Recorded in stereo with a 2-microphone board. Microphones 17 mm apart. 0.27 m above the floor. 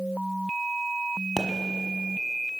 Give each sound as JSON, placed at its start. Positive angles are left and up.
{"t": 1.4, "sound": "a pop", "side_deg": -15, "distance_m": 1.2}